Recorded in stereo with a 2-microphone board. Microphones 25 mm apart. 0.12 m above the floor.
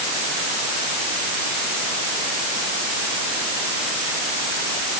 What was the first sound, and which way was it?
Only background noise.